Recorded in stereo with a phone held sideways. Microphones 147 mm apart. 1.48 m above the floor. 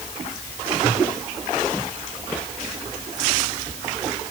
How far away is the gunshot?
I don't hear a gunshot.